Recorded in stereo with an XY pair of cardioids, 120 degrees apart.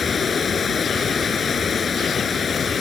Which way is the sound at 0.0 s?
30° left.